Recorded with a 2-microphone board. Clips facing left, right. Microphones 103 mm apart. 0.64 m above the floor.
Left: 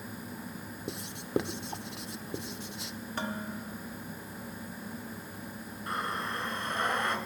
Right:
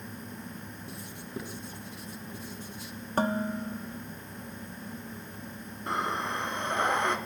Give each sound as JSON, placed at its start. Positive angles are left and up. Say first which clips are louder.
{"t": 0.9, "sound": "writing", "louder": "left 12 dB", "side_deg": 65, "distance_m": 0.6}
{"t": 3.2, "sound": "dishes clattering", "louder": "right 9 dB", "side_deg": -40, "distance_m": 0.8}
{"t": 5.9, "sound": "breathing", "louder": "right 4 dB", "side_deg": -20, "distance_m": 2.5}